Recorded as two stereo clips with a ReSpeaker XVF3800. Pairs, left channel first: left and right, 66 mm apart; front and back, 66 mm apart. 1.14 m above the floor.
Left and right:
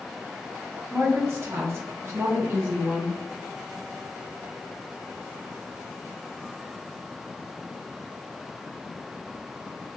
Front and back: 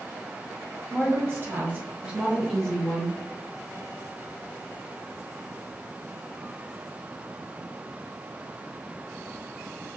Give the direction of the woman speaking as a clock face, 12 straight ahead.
5 o'clock.